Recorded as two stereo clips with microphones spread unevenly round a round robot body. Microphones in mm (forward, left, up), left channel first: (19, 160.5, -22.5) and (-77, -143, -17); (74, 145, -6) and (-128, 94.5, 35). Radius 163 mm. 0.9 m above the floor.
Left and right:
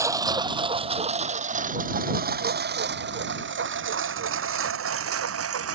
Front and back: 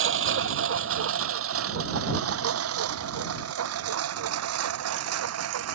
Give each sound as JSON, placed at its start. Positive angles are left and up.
{"t": 0.0, "sound": "a lawn mower", "azimuth_deg": 170}